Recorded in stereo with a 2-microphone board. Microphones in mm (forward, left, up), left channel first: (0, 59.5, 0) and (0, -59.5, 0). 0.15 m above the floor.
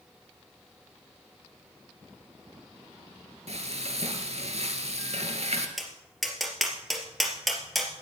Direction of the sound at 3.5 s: 60° right (ahead or behind).